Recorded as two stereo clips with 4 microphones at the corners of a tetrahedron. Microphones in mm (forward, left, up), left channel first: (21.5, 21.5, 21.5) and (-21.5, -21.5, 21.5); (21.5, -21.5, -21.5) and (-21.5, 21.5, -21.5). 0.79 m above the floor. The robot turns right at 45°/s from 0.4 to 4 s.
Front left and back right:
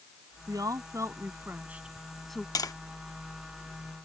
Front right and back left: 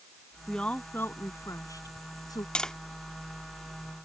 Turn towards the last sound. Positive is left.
turn(degrees=90)